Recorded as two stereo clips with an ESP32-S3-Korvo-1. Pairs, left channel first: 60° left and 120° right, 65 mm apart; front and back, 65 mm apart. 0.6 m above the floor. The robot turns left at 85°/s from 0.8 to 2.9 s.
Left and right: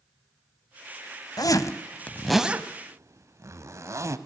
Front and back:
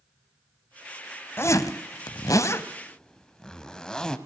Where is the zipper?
50° left, 1.0 m; by 4.2 s 80° right, 1.0 m.